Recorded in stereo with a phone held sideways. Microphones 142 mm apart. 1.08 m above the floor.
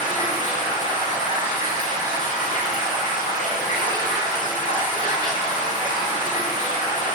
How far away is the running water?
About 1.2 m.